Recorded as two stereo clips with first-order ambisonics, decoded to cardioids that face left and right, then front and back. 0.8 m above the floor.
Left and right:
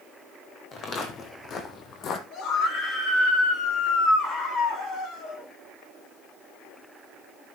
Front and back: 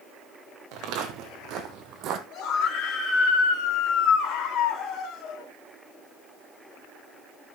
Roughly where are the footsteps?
Behind left.